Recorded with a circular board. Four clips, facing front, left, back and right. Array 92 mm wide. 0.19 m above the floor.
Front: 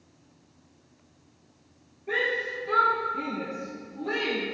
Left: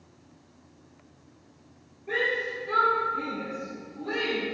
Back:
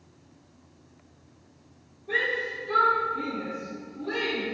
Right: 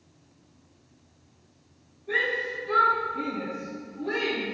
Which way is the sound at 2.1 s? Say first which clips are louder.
Even, front 1 dB; 30° left.